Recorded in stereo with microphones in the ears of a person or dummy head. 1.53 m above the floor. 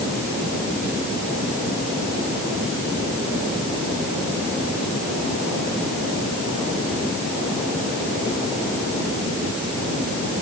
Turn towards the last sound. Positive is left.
No sound to turn to.